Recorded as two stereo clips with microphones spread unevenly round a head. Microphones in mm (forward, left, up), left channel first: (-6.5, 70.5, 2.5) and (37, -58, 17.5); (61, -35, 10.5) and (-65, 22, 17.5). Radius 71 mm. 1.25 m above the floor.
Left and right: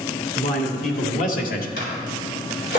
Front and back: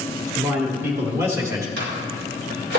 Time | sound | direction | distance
0.3 | a man speaking | 80° left | 3 m
1.8 | a microwave | 145° left | 4 m